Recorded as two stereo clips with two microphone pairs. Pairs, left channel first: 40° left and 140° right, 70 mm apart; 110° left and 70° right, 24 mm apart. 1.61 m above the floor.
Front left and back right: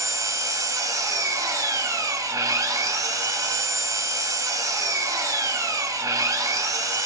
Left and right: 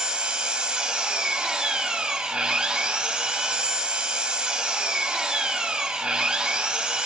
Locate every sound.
0.0 s an engine running: 115° right, 1.7 m